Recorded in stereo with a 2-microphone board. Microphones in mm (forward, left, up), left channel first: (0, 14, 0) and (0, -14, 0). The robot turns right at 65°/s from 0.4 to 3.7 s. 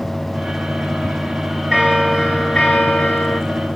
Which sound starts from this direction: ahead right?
A bell, at 1.7 s.